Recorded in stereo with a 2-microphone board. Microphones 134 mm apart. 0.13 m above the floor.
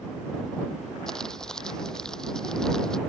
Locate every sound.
1.1 s crumpling: 5° left (ahead or behind)